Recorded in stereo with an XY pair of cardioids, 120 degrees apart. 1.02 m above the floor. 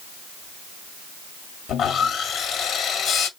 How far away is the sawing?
About 1.1 m.